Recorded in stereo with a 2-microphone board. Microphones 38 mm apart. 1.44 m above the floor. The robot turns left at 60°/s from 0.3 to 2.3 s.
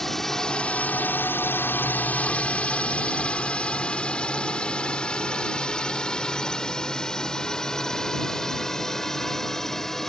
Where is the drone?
10° left (ahead or behind).